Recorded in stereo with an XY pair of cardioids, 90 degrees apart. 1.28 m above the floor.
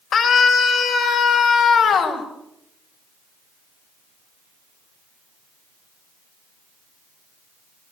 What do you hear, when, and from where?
0.1 s a scream: 65° left, 6 m; by 2.2 s 75° left, 6.5 m